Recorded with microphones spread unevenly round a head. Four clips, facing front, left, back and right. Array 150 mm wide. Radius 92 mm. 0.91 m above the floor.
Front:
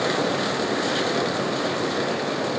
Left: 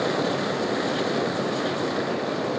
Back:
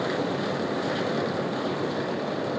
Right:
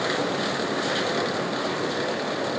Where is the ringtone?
No ringtone in this recording.